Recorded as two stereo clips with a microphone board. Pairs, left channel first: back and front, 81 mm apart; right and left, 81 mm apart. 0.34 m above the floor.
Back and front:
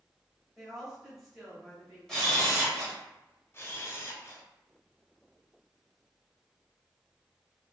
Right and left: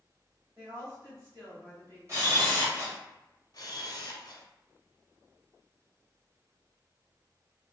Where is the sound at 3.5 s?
125° right, 0.7 m.